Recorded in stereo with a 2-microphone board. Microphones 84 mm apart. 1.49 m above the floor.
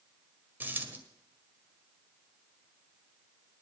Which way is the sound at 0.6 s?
20° right (ahead or behind).